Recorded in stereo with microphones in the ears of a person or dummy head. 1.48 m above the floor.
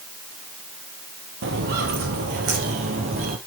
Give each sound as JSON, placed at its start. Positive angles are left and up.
{"t": 1.4, "sound": "footsteps", "side_deg": -50, "distance_m": 2.5}